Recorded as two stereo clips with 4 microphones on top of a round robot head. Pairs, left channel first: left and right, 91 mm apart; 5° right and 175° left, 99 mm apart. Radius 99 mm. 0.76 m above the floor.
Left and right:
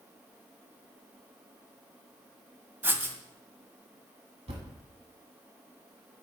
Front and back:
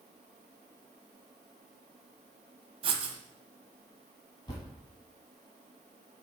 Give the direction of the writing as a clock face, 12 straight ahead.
5 o'clock.